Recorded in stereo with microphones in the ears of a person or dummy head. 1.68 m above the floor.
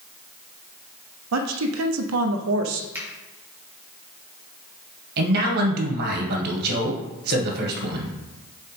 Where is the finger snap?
15° right (ahead or behind), 2.5 m.